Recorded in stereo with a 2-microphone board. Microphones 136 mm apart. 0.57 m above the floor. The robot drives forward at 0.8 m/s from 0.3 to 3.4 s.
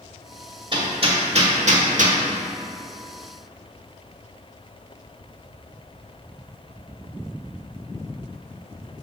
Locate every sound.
0.7 s hammering: 40° right (ahead or behind), 1.7 m; by 2.2 s 70° right (ahead or behind), 1.1 m